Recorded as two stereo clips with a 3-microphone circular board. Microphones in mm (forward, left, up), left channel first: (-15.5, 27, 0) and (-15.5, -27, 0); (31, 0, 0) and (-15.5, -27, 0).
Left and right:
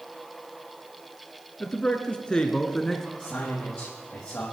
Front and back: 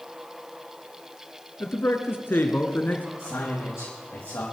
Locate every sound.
1.6 s a man speaking: 30° left, 1.7 m; by 3.1 s 15° left, 1.2 m
3.2 s a man speaking: 25° left, 4.5 m